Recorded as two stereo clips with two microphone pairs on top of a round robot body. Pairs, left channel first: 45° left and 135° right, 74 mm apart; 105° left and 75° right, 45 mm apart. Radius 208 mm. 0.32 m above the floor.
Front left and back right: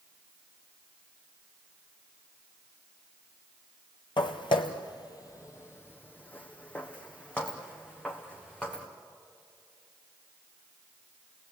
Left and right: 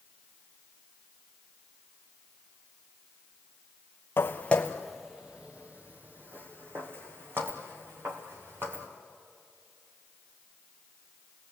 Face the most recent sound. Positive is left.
turn(degrees=-35)